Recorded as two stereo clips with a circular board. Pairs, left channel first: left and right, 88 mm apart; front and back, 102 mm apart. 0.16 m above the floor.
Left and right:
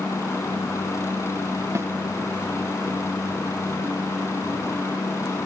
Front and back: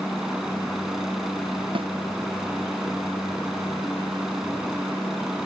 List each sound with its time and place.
0.0 s a helicopter: 95° left
1.8 s a snare drum: 150° right